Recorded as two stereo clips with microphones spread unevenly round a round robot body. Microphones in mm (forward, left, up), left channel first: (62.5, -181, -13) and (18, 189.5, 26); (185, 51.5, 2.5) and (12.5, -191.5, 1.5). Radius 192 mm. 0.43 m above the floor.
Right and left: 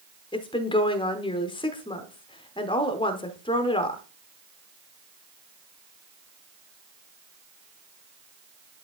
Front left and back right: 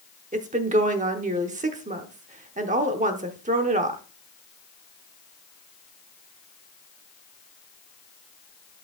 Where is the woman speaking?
125° right, 0.8 m.